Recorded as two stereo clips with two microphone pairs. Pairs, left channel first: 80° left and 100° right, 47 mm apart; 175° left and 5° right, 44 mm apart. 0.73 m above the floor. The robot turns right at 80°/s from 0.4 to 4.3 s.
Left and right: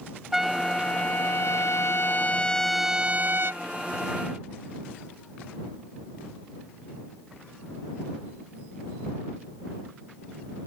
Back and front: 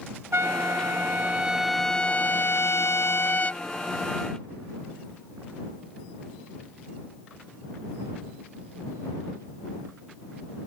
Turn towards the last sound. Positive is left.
turn(degrees=-65)